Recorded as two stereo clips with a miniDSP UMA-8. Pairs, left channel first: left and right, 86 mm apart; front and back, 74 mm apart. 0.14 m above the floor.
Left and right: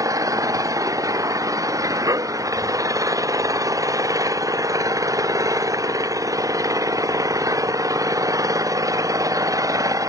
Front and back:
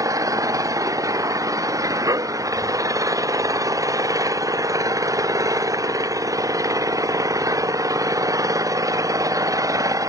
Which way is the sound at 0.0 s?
140° right.